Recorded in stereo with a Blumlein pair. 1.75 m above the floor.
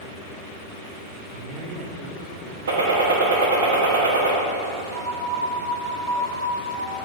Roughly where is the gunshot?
Ahead right.